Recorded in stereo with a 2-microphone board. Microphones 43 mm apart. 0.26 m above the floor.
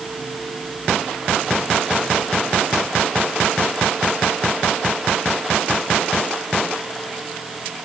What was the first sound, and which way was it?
Only background noise.